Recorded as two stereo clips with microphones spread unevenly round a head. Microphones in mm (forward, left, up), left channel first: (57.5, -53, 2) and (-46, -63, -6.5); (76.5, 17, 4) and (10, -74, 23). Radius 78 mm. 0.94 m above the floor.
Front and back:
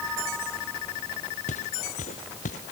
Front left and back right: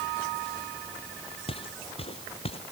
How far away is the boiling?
No boiling in this recording.